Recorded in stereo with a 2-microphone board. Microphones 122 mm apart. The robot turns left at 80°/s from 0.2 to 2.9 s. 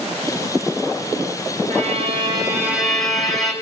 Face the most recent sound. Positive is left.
turn(degrees=180)